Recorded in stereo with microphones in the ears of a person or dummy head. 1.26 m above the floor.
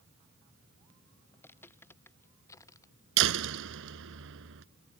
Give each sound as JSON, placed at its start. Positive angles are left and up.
{"t": 1.3, "sound": "footsteps", "side_deg": 10}
{"t": 3.2, "sound": "a door slam", "side_deg": -70}